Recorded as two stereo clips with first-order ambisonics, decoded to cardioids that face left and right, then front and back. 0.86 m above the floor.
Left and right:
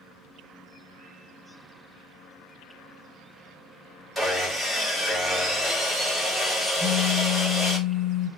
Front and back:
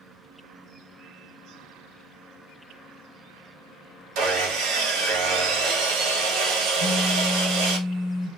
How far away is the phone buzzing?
About 1.4 m.